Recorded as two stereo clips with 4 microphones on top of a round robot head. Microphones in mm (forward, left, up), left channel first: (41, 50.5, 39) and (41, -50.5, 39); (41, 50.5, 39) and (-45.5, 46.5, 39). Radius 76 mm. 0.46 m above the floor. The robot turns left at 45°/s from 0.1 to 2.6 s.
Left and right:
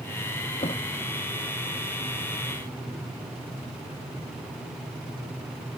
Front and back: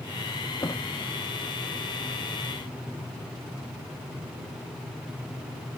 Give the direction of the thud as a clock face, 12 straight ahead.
10 o'clock.